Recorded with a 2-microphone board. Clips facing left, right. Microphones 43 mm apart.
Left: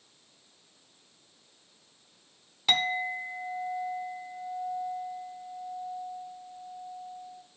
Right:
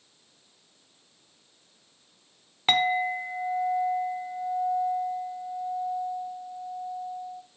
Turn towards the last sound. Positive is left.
turn(degrees=-35)  # may be behind; listen again after turning